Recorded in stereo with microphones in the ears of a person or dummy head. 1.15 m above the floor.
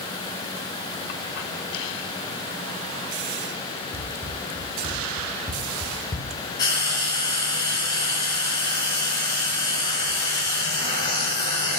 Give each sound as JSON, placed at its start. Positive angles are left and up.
{"t": 3.9, "sound": "running footsteps", "side_deg": -15, "distance_m": 3.5}
{"t": 6.6, "sound": "frying", "side_deg": 20, "distance_m": 3.0}